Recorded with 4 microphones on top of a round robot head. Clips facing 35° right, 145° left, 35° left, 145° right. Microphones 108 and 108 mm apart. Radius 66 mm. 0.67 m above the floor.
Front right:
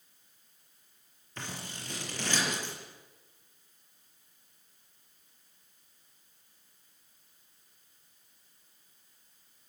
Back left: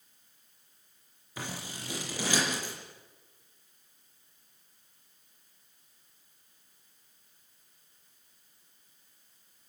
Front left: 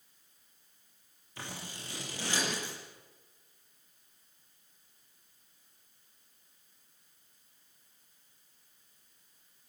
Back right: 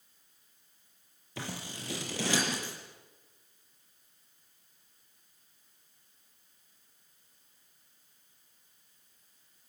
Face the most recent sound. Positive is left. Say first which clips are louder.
# back left 2 dB, back right 4 dB
turn(degrees=-135)